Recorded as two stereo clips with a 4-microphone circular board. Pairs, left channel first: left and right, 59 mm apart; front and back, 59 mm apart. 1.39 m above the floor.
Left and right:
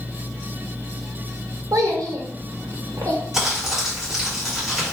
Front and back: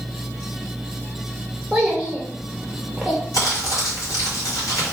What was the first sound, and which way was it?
A child speaking, 95° right.